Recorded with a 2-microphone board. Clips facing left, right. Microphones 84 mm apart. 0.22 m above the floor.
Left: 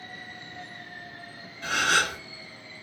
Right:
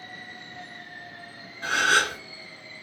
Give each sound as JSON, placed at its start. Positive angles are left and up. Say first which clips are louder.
{"t": 1.6, "sound": "a gasp", "louder": "right 2 dB", "side_deg": -35, "distance_m": 1.8}